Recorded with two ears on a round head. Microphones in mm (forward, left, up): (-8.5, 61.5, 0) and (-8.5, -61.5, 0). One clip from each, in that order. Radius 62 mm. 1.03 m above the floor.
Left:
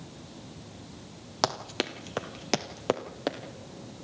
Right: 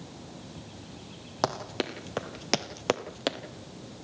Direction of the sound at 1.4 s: 40° left (ahead or behind).